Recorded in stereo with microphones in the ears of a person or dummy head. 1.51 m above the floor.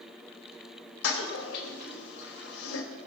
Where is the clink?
I don't hear a clink.